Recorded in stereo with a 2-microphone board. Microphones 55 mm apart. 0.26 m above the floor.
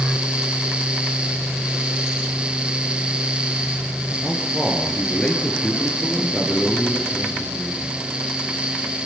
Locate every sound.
4.2 s a man speaking: 20° left (ahead or behind), 4.5 m